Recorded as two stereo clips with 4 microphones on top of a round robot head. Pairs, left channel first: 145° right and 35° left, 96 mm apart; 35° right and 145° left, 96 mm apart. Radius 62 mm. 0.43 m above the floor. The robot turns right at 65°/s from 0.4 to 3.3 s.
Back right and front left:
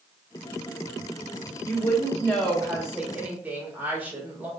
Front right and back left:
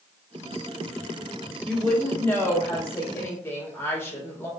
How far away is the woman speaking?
About 1.2 m.